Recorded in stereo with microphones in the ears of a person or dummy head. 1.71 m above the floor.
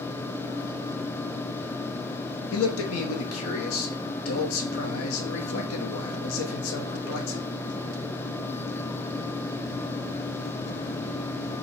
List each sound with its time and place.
2.5 s a man speaking: 80° left, 0.7 m